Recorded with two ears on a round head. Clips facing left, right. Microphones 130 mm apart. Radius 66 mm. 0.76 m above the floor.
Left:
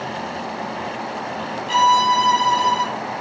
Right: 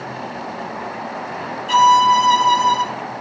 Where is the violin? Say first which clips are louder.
Right 4 dB; 65° right (ahead or behind), 4 m.